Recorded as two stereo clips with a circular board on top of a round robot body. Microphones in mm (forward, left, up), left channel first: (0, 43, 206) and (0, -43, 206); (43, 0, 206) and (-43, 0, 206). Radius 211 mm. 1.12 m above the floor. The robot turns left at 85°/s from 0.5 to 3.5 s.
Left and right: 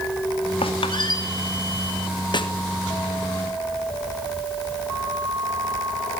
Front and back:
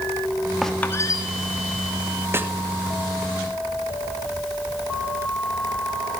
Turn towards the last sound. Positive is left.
turn(degrees=20)